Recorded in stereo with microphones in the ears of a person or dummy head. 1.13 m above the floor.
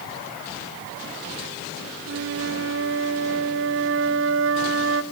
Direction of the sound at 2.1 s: 65° right (ahead or behind).